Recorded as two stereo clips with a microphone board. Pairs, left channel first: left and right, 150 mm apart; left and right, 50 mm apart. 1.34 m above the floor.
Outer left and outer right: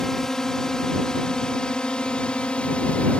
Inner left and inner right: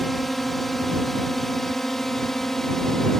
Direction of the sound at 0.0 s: 5° left (ahead or behind).